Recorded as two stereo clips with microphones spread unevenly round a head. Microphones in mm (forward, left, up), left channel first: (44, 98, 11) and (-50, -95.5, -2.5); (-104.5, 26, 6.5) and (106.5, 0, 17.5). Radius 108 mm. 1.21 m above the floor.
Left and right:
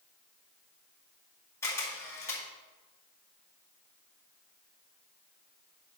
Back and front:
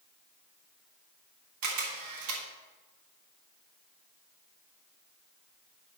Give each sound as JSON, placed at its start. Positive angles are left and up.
{"t": 1.6, "sound": "a camera shutter", "azimuth_deg": -15, "distance_m": 2.0}